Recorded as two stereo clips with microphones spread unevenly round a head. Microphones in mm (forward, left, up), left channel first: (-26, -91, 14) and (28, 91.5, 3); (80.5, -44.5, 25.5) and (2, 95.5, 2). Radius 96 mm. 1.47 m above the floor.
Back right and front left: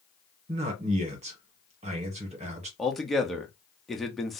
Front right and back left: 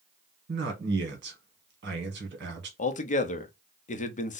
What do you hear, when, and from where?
0.5 s a man speaking: 130° left, 1.3 m
2.8 s a man speaking: 15° right, 0.6 m